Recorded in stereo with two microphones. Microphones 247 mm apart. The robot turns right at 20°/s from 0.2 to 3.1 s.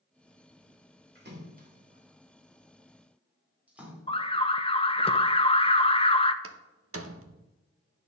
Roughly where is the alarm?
Left.